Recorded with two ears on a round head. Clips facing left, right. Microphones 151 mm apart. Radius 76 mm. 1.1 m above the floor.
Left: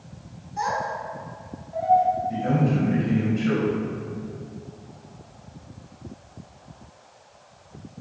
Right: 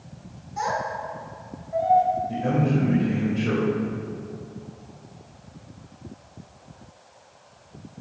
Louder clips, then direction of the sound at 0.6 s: Even; 80° right.